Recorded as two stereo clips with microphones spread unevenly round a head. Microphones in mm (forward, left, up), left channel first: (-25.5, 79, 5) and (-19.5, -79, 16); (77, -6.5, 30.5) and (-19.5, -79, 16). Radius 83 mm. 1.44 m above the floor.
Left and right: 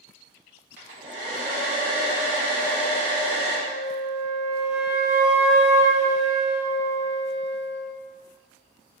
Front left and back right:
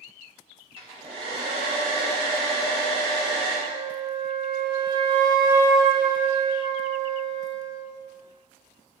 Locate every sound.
0.8 s a hair dryer: 105° right, 1.9 m
3.7 s a flute: 110° right, 1.5 m